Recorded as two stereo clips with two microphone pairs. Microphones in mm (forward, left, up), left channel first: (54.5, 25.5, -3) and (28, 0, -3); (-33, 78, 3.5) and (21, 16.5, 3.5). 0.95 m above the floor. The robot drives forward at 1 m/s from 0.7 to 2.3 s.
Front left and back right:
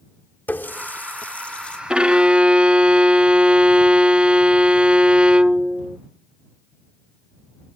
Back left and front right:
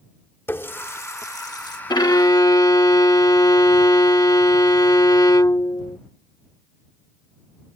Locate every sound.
0.5 s a running tap: 70° left; by 1.8 s 105° left
1.9 s a violin: 160° left; by 6.0 s 165° left